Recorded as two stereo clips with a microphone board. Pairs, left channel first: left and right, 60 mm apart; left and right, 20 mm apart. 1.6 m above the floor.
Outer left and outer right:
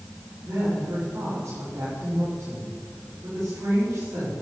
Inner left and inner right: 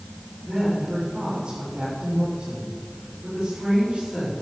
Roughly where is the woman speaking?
Right.